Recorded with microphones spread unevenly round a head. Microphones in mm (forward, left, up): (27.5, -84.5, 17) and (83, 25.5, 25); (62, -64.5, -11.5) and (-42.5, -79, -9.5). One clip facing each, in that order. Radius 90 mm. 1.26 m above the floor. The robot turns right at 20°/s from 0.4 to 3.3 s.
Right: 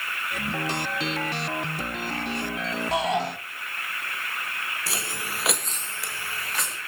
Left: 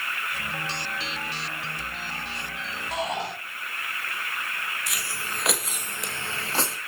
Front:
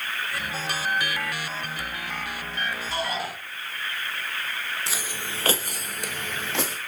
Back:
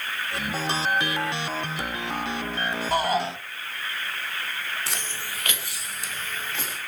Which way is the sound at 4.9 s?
85° right.